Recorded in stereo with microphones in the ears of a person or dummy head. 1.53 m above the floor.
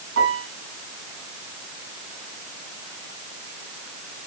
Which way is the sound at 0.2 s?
70° right (ahead or behind).